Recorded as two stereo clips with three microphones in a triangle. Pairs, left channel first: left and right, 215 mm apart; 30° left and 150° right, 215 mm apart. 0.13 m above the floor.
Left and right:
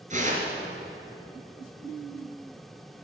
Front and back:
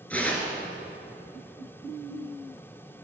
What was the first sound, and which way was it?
Tearing paper, 50° right.